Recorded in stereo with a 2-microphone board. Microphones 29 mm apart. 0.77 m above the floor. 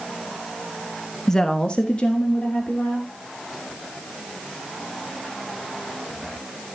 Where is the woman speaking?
15° left (ahead or behind), 1.0 m; by 3.1 s 50° left (ahead or behind), 3 m.